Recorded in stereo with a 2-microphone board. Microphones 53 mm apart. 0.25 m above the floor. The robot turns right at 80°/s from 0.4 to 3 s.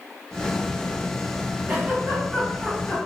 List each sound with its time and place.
1.7 s a giggle: 25° right (ahead or behind), 1.3 m; by 3.0 s 10° left (ahead or behind), 1.3 m